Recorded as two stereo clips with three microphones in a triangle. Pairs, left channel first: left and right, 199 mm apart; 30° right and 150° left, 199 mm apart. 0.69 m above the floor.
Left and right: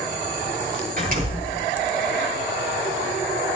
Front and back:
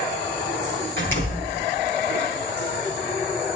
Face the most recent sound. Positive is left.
turn(degrees=-45)